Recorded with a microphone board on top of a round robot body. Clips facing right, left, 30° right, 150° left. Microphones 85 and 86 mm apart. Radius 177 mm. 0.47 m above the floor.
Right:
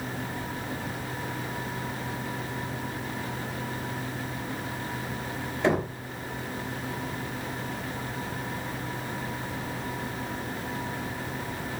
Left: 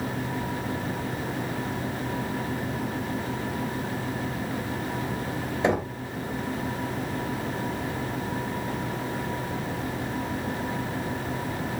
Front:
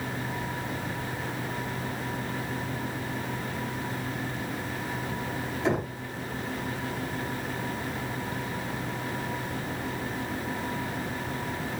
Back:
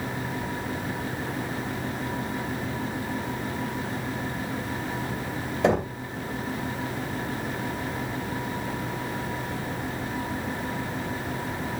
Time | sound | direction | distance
5.6 | knocking | 160° left | 3 m